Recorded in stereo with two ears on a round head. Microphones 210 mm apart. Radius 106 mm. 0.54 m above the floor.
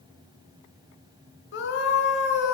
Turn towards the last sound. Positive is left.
turn(degrees=55)  # may be behind; listen again after turning